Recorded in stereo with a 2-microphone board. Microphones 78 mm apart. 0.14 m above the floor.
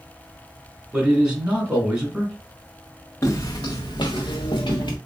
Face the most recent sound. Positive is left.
turn(degrees=80)